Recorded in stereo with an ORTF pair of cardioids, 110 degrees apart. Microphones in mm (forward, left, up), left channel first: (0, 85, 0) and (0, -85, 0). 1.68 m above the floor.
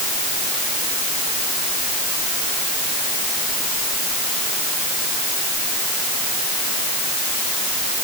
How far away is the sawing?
I don't hear sawing.